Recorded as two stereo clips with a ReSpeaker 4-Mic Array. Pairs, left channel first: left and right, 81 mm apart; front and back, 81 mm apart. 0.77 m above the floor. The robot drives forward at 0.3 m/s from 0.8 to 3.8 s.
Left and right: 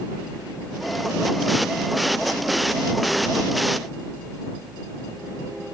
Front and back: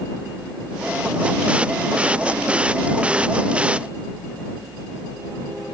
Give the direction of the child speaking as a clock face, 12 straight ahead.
I don't hear a child speaking.